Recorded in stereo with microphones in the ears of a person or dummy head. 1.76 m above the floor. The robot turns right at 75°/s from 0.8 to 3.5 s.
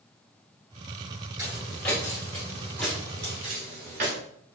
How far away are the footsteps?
About 1.8 m.